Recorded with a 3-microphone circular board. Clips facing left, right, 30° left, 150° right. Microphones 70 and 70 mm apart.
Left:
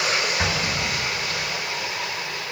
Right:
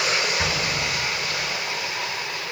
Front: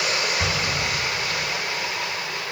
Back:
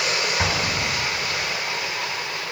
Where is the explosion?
175° left, 0.9 m.